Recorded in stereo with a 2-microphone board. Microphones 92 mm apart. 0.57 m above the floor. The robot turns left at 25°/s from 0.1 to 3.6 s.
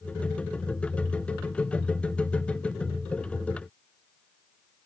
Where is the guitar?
No guitar in this recording.